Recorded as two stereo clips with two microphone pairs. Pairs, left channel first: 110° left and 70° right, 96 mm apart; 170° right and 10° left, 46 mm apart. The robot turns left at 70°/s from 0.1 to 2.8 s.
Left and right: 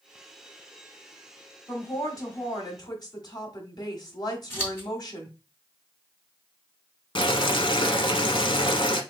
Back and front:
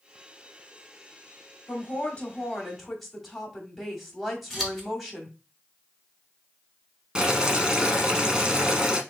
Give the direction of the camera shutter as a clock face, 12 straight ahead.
No camera shutter in this recording.